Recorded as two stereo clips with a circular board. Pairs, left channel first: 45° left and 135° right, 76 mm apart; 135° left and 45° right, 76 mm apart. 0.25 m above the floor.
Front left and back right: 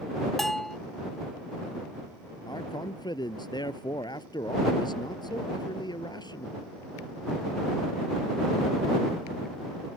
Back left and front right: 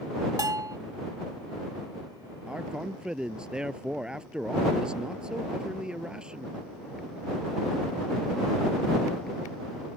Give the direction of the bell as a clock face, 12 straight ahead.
1 o'clock.